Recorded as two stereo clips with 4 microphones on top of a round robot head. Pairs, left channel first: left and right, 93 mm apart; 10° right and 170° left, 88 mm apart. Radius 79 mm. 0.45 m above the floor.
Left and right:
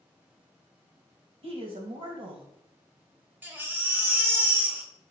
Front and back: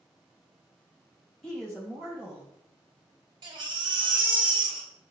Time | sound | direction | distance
1.4 | a woman speaking | 95° right | 2.5 m
3.4 | a baby crying | 160° right | 2.0 m